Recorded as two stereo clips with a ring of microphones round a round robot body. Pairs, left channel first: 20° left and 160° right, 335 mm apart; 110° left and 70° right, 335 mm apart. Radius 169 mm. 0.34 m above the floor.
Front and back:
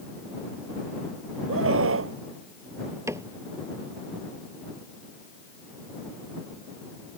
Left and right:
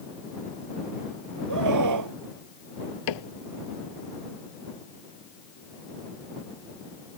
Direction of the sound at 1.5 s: 105° right.